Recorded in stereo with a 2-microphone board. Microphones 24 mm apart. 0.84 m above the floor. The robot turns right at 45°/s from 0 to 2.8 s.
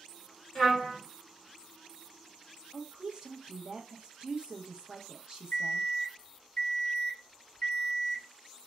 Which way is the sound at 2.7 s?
35° right (ahead or behind).